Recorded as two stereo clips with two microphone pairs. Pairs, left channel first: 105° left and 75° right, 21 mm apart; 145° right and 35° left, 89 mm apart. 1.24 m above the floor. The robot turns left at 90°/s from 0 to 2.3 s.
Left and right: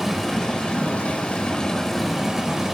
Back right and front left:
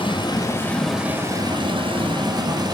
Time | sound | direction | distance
0.0 | running water | 155° right | 5.5 m